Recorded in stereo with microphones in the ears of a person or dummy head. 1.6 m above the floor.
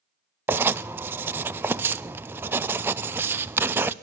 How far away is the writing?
About 0.6 m.